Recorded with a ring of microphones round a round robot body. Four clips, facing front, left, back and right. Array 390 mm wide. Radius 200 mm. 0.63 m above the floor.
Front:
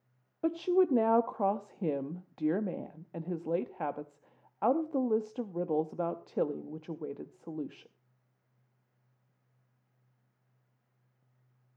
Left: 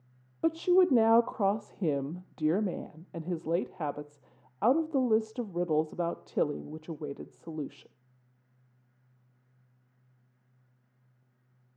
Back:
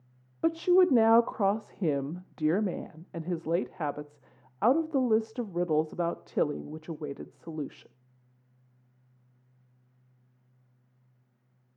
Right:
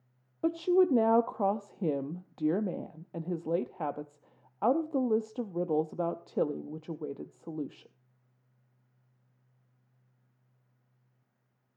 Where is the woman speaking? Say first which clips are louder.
Left 1 dB, back 4 dB; 170° left, 0.6 m.